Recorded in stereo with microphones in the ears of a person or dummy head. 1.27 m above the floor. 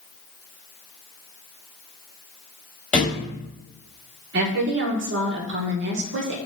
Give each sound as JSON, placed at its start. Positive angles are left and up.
{"t": 2.9, "sound": "a thud", "side_deg": 5, "distance_m": 1.3}
{"t": 4.3, "sound": "a woman speaking", "side_deg": -65, "distance_m": 1.2}